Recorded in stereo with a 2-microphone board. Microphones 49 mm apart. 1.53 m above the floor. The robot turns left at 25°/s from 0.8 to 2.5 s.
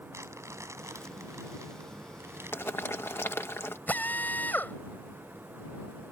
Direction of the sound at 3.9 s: 40° left (ahead or behind).